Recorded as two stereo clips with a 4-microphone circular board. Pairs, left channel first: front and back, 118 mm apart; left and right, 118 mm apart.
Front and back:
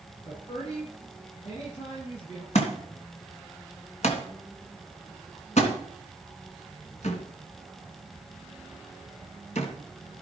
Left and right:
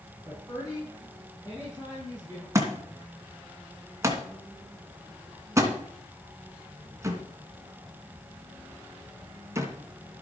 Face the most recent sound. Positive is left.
turn(degrees=-25)